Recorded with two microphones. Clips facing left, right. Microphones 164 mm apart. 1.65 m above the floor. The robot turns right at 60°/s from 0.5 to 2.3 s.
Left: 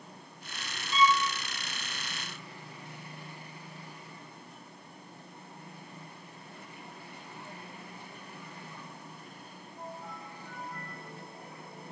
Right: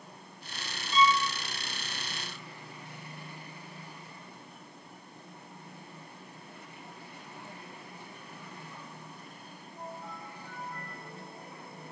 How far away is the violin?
About 1.1 m.